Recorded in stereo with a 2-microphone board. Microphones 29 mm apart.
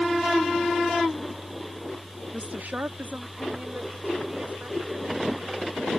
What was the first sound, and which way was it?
A woman speaking, 50° right (ahead or behind).